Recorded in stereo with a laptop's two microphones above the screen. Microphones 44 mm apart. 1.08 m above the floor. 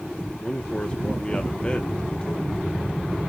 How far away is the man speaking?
About 1.1 m.